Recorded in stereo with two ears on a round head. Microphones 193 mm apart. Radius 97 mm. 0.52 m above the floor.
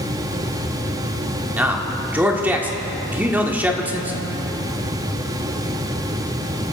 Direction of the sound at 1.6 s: 10° right (ahead or behind).